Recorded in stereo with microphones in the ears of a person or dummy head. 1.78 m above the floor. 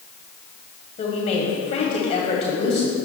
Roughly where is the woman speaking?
Left.